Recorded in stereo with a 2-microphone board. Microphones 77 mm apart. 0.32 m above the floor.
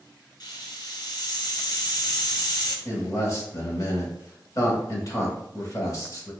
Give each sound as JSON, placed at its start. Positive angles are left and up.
{"t": 0.4, "sound": "a hiss", "side_deg": 65, "distance_m": 1.3}
{"t": 2.9, "sound": "a man speaking", "side_deg": 45, "distance_m": 1.1}